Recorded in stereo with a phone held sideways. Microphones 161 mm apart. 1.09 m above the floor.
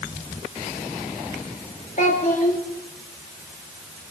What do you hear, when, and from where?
2.0 s a child speaking: 55° left (ahead or behind), 1.9 m